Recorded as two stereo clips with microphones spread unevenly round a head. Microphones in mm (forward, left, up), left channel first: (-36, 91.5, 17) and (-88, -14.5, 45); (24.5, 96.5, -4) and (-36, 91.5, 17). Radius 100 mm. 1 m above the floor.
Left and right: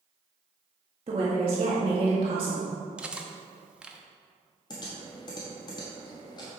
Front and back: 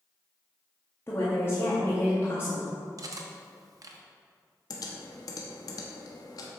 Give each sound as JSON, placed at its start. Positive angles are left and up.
{"t": 1.1, "sound": "a woman speaking", "azimuth_deg": -55, "distance_m": 1.8}
{"t": 3.0, "sound": "cutlery clinking", "azimuth_deg": 165, "distance_m": 1.0}
{"t": 4.7, "sound": "typing on a keyboard", "azimuth_deg": 0, "distance_m": 1.1}